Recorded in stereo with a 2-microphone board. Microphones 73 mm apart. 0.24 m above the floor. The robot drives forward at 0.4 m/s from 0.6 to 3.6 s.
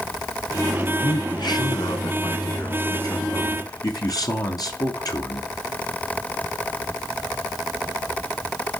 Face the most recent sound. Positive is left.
turn(degrees=55)  # may be behind; listen again after turning